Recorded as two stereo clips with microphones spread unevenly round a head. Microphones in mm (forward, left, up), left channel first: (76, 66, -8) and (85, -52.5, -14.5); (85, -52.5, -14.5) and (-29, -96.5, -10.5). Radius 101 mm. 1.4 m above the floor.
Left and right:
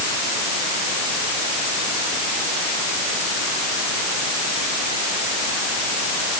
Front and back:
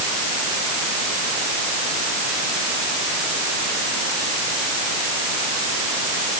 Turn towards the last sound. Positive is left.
No sound to turn to.